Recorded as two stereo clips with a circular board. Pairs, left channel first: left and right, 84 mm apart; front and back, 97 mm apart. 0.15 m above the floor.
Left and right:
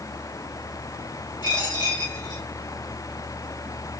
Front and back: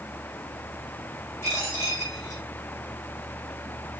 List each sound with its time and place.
1.4 s a dropped coin: 65° left, 3.5 m